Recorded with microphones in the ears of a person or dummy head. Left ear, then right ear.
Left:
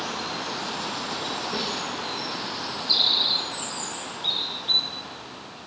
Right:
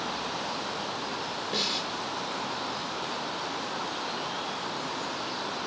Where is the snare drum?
20° right (ahead or behind), 1.9 m.